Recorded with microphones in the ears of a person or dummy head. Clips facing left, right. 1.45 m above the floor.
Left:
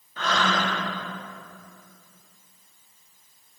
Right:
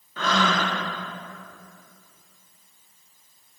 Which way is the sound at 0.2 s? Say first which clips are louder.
Right 2 dB; 70° right (ahead or behind).